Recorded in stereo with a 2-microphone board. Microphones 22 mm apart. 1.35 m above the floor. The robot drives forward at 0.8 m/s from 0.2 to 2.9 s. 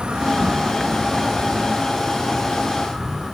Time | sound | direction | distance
0.0 | an insect | 55° right (ahead or behind) | 1.0 m